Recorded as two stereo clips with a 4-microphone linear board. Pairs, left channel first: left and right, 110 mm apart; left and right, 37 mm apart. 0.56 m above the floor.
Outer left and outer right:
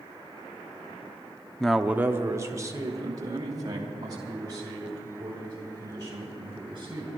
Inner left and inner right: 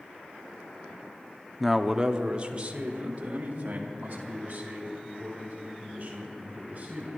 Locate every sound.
1.6 s a man speaking: 5° left (ahead or behind), 0.6 m; by 7.1 s 40° right (ahead or behind), 6.5 m